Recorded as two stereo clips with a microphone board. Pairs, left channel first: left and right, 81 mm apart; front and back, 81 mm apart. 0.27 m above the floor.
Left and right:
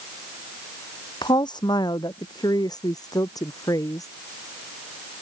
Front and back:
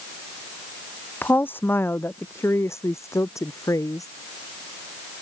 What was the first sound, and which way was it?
A woman speaking, 65° left.